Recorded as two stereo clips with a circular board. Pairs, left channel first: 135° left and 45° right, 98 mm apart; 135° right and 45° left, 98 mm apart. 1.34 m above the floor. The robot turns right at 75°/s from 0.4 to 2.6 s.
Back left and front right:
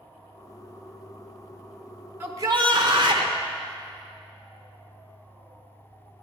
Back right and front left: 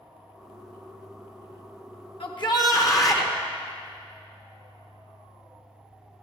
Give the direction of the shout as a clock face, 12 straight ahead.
4 o'clock.